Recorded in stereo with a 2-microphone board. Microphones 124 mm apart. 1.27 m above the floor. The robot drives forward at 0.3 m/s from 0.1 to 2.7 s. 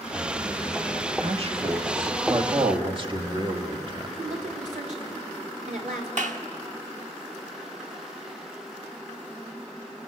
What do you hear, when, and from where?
1.2 s a man speaking: 50° right (ahead or behind), 1.6 m; by 4.1 s 40° right (ahead or behind), 1.9 m
4.2 s a woman speaking: 75° right (ahead or behind), 4 m
6.2 s a clap: 75° right (ahead or behind), 1.3 m